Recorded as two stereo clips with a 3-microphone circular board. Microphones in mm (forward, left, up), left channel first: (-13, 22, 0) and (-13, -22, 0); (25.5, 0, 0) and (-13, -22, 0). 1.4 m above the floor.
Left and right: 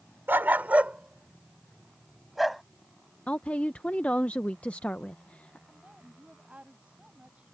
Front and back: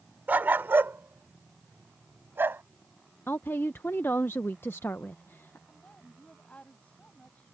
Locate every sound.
0.3 s a dog barking: 115° right; by 2.6 s straight behind
3.3 s a woman speaking: 35° left
5.7 s a woman speaking: 30° right